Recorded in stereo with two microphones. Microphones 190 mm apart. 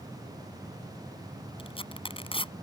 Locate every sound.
1.6 s tearing paper: 30° left (ahead or behind)